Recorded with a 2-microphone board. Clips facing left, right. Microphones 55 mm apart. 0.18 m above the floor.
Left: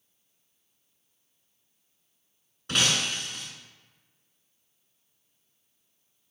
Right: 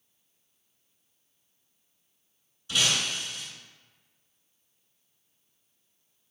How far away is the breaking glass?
About 0.7 m.